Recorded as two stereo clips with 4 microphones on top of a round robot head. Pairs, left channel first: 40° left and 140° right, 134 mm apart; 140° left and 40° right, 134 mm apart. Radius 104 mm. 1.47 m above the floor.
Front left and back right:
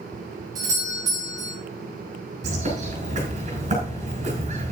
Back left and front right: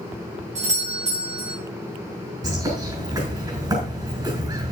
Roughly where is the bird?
Right.